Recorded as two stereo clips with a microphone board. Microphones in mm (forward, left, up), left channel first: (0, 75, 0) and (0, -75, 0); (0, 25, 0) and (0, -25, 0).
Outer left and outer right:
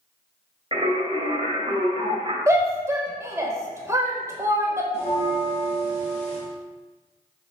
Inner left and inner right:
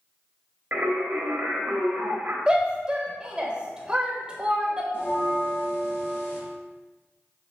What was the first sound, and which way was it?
Singing, 35° right (ahead or behind).